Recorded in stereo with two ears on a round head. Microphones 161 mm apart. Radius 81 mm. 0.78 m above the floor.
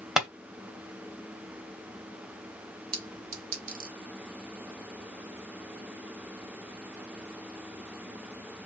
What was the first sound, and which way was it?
Tapping, 5° right (ahead or behind).